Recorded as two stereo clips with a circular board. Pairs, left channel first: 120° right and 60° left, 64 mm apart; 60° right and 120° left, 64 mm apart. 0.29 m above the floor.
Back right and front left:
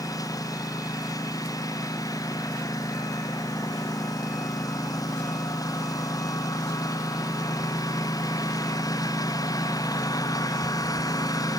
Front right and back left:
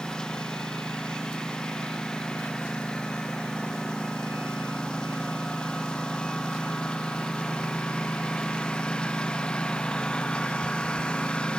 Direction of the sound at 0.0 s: 140° right.